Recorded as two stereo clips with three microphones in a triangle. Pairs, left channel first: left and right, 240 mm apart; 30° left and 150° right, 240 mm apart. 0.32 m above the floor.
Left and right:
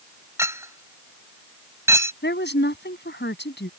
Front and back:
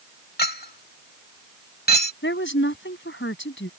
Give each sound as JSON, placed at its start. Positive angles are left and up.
{"t": 0.4, "sound": "a clink", "azimuth_deg": -15}
{"t": 2.2, "sound": "a woman speaking", "azimuth_deg": 55}